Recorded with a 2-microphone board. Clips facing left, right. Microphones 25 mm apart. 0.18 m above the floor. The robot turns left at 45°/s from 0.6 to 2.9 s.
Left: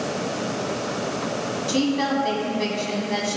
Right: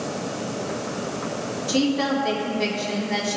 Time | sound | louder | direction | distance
1.7 | a woman speaking | right 1 dB | 15° left (ahead or behind) | 1.6 m